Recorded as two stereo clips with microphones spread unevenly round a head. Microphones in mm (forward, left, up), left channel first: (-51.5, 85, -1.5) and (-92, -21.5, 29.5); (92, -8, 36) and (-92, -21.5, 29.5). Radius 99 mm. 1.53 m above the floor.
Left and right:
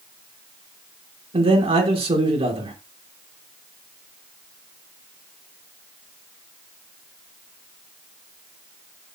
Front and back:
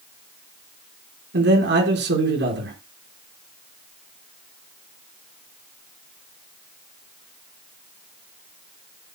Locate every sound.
1.3 s a man speaking: 145° right, 5.5 m